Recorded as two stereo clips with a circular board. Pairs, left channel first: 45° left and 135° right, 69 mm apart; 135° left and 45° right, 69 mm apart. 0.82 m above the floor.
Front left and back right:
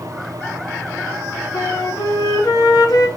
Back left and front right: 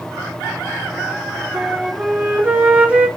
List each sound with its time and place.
1.5 s a flute: 25° left, 1.7 m